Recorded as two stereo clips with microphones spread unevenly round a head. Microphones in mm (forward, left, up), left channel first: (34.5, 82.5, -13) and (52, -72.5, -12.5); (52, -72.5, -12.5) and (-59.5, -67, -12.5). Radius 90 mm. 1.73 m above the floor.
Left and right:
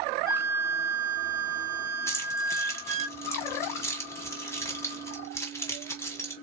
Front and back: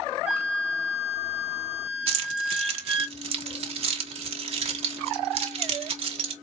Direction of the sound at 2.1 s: 170° left.